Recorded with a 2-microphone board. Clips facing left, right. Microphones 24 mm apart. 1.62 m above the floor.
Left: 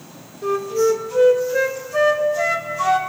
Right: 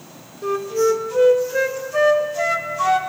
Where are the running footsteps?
I don't hear running footsteps.